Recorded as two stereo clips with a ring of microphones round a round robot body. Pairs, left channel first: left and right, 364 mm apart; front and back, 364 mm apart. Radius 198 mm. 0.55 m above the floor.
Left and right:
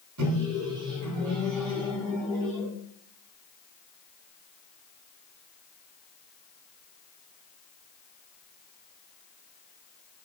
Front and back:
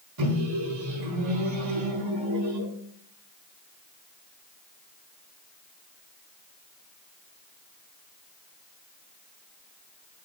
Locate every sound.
0.2 s a microwave: 140° right, 3.5 m